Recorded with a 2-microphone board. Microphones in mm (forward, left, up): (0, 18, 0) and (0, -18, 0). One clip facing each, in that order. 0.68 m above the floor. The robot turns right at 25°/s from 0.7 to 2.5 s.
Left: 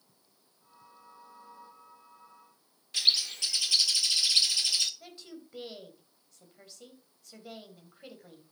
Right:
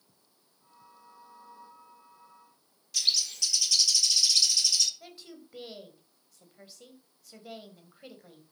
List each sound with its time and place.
2.9 s a bird: 30° left (ahead or behind), 1.0 m
5.0 s a woman speaking: centre (ahead or behind), 3 m